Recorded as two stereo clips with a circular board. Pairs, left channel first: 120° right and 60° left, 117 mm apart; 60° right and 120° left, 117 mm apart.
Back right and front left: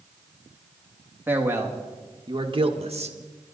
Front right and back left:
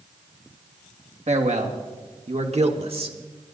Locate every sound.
1.3 s a man speaking: 135° left, 2.0 m; by 3.2 s 80° left, 1.3 m